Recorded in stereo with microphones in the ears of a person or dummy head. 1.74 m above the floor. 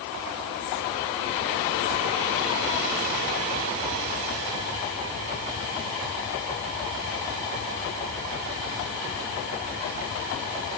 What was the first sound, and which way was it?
Only background noise.